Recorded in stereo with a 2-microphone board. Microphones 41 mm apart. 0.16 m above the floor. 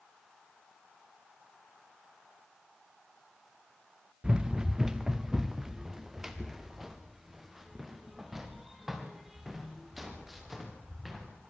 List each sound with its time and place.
4.2 s running footsteps: 20° right (ahead or behind), 1.0 m; by 11.5 s 5° right (ahead or behind), 5 m